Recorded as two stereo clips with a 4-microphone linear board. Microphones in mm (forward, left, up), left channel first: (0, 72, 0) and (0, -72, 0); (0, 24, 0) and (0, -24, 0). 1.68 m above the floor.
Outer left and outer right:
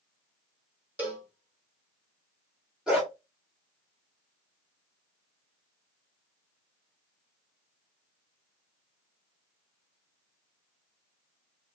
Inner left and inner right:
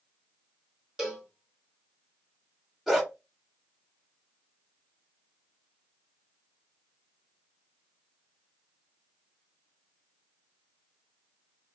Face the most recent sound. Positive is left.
turn(degrees=-5)  # may be behind; listen again after turning